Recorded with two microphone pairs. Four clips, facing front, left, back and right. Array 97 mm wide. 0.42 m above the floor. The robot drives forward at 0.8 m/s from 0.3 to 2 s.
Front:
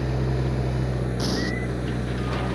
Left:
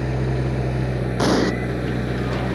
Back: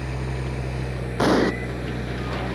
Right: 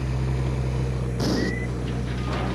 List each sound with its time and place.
0.0 s an engine running: 60° left; by 2.5 s 75° left
1.2 s an explosion: 140° left; by 1.5 s 145° left